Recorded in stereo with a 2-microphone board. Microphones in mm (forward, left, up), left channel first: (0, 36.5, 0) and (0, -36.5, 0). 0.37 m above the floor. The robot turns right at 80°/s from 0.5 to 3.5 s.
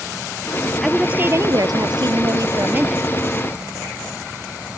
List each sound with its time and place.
0.8 s a woman speaking: 175° left; by 3.0 s 5° right